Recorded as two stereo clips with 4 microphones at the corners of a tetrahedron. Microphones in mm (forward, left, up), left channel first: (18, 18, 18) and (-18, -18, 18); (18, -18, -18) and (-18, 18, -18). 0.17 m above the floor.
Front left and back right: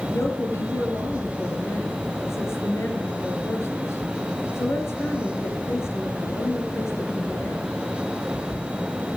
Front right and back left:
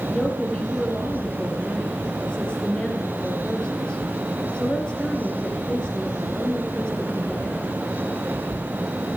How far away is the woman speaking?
About 3.5 m.